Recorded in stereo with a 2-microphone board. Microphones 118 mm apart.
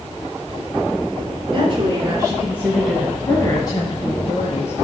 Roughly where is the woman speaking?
Right.